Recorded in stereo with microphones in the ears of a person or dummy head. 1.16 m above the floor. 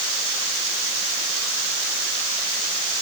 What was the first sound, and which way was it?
Only background noise.